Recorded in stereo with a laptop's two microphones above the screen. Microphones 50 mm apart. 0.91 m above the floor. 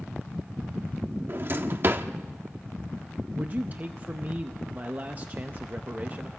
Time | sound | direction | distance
1.3 | a drawer | 45° right (ahead or behind) | 0.6 m
3.4 | a man speaking | 30° right (ahead or behind) | 0.5 m